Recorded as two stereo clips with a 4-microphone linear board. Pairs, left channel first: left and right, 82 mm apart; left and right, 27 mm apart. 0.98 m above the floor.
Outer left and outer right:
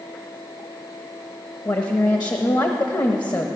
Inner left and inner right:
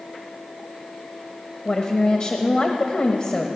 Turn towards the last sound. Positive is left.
turn(degrees=50)  # may be behind; listen again after turning